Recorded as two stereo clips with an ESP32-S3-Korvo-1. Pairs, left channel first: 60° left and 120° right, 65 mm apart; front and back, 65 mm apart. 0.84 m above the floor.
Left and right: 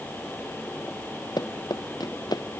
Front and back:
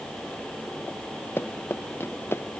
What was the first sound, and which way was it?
Running footsteps, 55° left.